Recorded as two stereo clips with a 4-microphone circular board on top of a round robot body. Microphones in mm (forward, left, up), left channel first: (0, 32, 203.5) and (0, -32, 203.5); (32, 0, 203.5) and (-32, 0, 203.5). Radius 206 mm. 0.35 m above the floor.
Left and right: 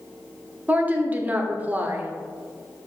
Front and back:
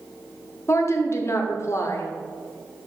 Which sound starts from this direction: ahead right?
A woman speaking, at 0.7 s.